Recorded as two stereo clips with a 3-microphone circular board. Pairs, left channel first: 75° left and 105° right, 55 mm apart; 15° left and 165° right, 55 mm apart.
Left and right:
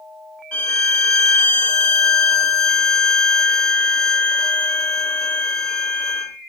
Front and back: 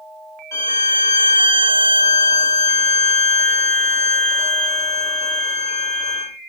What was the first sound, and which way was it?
A violin, 25° left.